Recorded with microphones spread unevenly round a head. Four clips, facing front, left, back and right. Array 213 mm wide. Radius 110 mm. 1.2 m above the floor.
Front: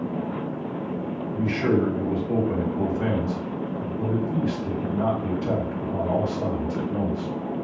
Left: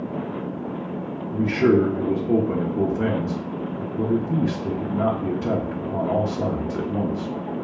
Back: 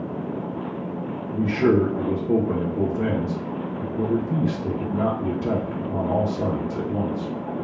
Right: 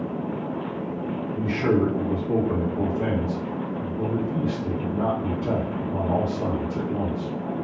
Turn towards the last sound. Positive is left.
turn(degrees=120)